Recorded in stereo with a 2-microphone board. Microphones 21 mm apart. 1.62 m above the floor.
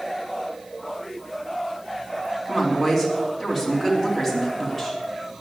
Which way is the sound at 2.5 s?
10° right (ahead or behind).